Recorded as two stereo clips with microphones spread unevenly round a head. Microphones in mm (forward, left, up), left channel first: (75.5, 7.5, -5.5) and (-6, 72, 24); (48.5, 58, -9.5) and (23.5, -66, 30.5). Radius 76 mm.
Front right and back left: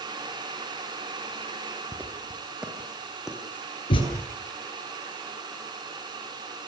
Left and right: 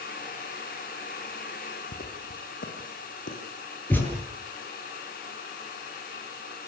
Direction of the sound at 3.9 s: Straight ahead.